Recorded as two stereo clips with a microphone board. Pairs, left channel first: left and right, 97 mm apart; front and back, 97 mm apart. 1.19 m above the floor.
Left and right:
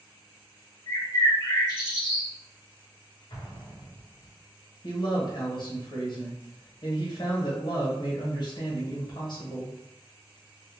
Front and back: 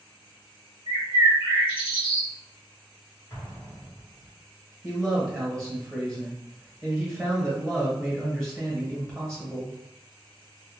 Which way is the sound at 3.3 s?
55° left.